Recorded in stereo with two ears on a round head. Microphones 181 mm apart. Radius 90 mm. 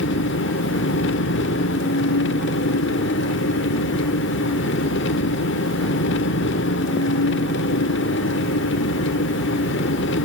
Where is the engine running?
60° left (ahead or behind), 1.2 m.